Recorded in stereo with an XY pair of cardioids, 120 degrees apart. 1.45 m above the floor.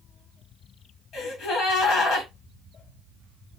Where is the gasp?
65° left, 1.9 m.